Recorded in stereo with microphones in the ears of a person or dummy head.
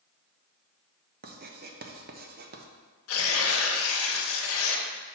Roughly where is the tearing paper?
Left.